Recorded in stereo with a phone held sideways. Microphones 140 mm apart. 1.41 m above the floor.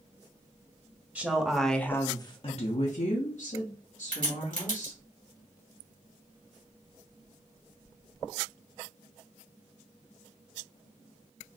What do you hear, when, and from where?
1.1 s a woman speaking: 10° right (ahead or behind), 0.8 m; by 5.0 s 55° left (ahead or behind), 1.5 m
4.1 s a crack: 75° right (ahead or behind), 2 m